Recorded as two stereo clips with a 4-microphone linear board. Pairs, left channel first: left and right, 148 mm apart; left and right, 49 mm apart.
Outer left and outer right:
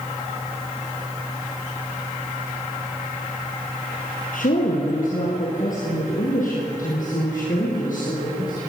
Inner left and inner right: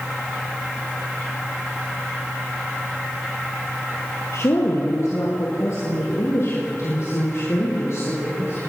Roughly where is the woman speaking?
Left.